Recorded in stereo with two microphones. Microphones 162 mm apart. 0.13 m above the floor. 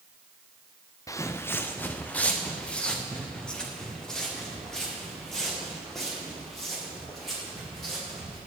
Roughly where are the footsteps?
Left.